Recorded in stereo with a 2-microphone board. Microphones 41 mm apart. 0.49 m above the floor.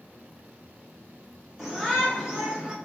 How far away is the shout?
About 1.9 m.